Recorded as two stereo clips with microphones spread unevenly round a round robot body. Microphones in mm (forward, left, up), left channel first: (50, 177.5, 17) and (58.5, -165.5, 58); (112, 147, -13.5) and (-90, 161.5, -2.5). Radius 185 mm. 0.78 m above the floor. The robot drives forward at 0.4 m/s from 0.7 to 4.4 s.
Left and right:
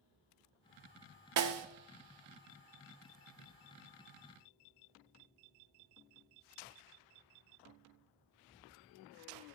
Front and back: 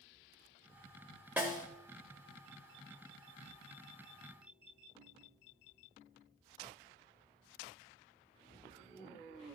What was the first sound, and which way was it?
A snare drum, 105° right.